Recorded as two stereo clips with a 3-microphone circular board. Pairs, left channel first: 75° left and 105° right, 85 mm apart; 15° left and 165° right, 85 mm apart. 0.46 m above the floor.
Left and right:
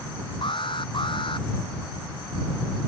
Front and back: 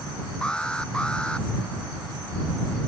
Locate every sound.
0.4 s an alarm: 95° left